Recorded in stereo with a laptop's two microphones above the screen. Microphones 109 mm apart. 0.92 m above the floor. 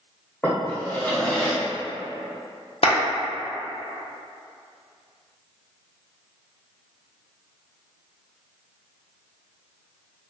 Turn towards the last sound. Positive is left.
turn(degrees=60)  # may be behind; listen again after turning